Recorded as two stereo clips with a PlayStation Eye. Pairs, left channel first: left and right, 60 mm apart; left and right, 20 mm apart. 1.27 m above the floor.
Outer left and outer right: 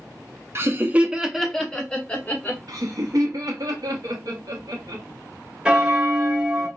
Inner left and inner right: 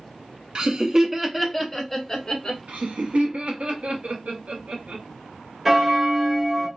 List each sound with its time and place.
0.6 s laughter: 45° right (ahead or behind), 0.6 m; by 2.6 s 25° left (ahead or behind), 1.2 m
2.7 s laughter: 70° right (ahead or behind), 0.8 m
5.7 s a bell: 15° right (ahead or behind), 0.6 m